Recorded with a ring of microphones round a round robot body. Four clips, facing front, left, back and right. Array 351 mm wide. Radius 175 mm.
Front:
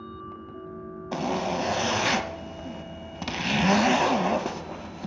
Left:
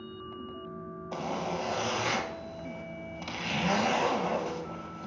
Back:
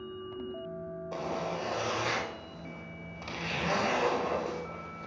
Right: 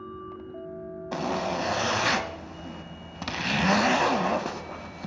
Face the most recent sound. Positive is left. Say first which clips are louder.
# right 5 dB, front 8 dB
turn(degrees=-25)